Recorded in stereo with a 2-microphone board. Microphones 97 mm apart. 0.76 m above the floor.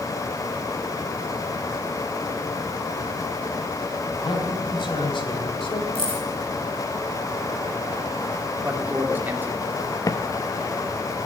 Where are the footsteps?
40° left (ahead or behind), 0.9 m.